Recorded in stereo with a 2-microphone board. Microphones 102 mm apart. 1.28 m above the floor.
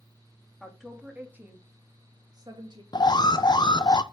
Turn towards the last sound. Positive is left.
turn(degrees=45)  # may be behind; listen again after turning